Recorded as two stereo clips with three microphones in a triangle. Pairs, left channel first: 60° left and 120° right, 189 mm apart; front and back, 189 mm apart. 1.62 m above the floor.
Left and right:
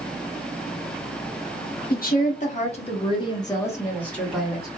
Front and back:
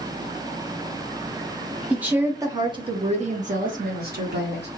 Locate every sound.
1.9 s a woman speaking: 95° left, 1.3 m; by 4.7 s 150° left, 1.7 m